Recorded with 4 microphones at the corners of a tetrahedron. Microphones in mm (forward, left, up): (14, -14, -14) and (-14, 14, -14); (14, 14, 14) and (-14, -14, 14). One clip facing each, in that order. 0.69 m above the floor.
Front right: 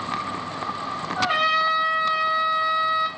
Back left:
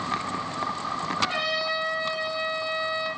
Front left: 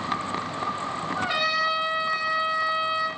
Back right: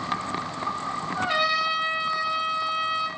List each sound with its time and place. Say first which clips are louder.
1.2 s a trumpet: front right 9 dB, back right 1 dB; 45° right, 2.5 m